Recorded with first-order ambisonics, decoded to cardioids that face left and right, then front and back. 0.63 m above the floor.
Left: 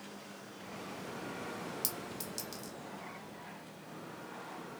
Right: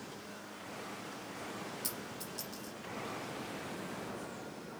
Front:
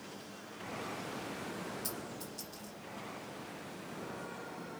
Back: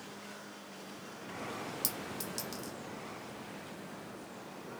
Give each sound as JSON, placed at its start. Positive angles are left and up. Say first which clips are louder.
{"t": 1.8, "sound": "a clink", "louder": "left 1 dB, back 3 dB", "azimuth_deg": 145, "distance_m": 1.1}